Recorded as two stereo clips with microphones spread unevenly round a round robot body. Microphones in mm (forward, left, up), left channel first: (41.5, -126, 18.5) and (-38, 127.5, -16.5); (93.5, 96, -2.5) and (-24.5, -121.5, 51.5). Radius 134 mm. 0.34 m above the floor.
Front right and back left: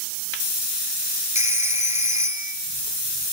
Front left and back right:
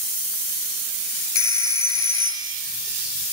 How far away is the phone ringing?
About 3.5 m.